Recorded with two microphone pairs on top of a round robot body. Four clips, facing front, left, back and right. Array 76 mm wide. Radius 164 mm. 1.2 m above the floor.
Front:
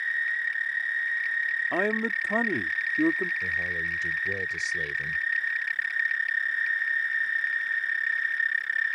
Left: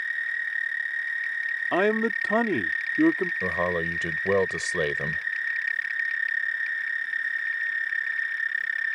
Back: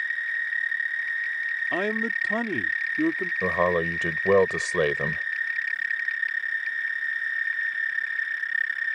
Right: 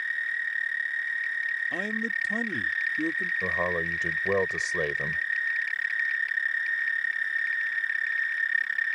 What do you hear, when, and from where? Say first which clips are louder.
1.7 s a man speaking: left 7 dB, back 1 dB; 80° left
3.4 s a man speaking: left 1 dB, back 7 dB; 170° left